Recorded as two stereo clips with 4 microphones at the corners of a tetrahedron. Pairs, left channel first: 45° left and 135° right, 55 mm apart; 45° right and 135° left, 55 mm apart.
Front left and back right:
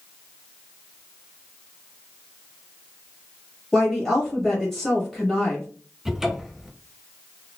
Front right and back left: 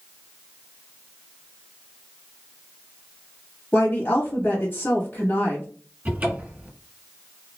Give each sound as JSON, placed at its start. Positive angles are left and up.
{"t": 3.7, "sound": "a woman speaking", "azimuth_deg": -35, "distance_m": 1.1}
{"t": 6.0, "sound": "a cupboard door", "azimuth_deg": 145, "distance_m": 1.2}